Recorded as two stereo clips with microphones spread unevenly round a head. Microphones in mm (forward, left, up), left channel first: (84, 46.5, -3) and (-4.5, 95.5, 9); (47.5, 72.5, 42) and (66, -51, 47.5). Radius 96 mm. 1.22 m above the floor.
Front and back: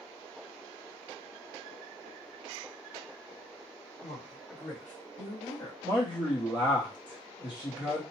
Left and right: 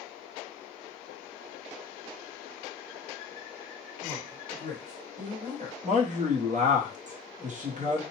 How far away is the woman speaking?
About 1.1 m.